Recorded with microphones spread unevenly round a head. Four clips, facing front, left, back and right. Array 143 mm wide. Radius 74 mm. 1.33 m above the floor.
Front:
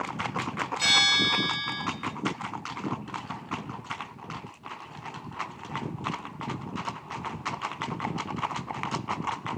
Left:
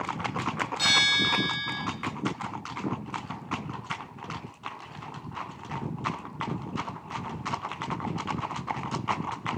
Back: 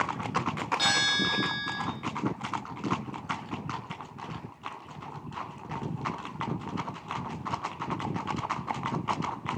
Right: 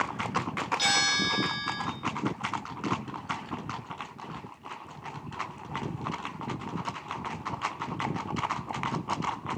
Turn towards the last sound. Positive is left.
turn(degrees=170)